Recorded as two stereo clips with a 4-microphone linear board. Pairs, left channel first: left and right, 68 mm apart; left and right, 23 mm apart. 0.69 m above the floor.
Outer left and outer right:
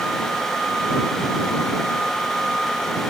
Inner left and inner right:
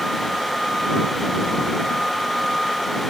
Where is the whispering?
I don't hear whispering.